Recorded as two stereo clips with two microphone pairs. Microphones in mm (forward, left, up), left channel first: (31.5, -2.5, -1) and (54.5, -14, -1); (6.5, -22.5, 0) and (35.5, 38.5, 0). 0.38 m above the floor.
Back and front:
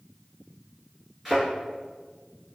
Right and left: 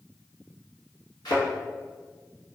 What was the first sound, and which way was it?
A thud, 110° right.